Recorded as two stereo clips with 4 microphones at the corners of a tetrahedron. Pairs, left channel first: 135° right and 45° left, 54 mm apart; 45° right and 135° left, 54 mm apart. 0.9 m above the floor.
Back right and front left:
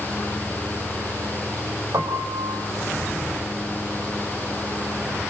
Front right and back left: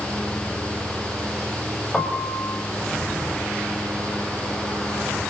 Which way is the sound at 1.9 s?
45° left.